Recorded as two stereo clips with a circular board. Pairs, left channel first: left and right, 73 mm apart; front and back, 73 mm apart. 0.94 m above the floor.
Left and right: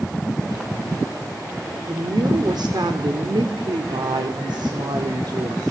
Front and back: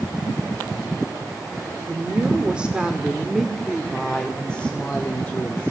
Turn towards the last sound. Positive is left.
turn(degrees=-60)